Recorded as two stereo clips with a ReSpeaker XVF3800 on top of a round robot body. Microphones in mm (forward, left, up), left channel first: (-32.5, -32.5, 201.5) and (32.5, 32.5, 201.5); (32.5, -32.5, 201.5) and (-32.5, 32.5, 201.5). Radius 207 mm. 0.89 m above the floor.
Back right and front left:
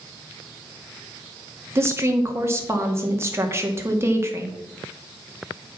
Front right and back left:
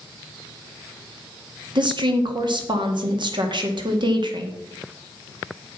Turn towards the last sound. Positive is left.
turn(degrees=105)